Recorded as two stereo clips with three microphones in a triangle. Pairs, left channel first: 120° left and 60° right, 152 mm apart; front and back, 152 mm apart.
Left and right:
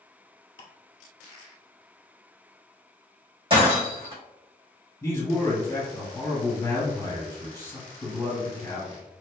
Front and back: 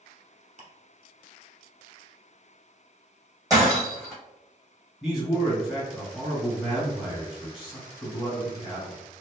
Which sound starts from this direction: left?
A man speaking, at 5.0 s.